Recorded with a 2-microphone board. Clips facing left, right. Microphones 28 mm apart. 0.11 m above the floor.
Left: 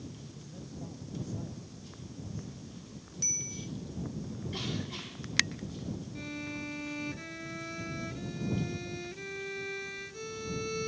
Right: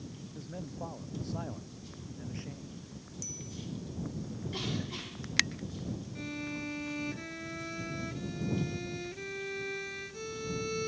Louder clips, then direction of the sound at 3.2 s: Left 7 dB; 50° left (ahead or behind).